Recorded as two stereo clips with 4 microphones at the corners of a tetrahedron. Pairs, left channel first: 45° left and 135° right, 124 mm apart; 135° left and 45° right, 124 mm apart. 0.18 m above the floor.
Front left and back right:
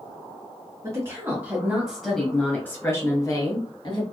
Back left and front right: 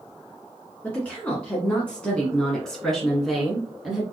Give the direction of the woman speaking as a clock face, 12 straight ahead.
5 o'clock.